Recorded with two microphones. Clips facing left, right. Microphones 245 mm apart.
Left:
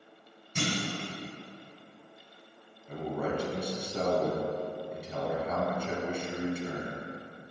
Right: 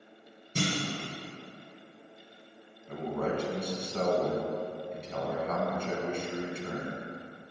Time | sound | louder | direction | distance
0.6 | a clunk | right 1 dB | 35° right (ahead or behind) | 2.5 m
2.9 | a man speaking | right 1 dB | 10° left (ahead or behind) | 1.6 m